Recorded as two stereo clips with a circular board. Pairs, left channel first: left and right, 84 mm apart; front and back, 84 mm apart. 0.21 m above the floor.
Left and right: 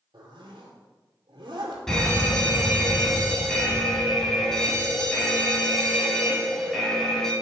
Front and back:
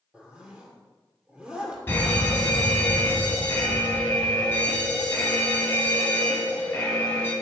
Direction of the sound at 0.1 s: 105° right.